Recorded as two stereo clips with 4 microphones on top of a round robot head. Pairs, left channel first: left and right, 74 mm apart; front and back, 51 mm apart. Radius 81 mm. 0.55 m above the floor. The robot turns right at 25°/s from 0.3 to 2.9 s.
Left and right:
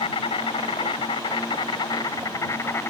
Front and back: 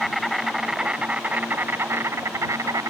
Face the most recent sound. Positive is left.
turn(degrees=155)